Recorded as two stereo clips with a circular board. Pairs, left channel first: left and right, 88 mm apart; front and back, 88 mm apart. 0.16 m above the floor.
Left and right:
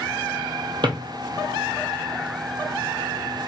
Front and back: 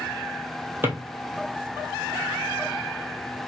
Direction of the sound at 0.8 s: 115° right.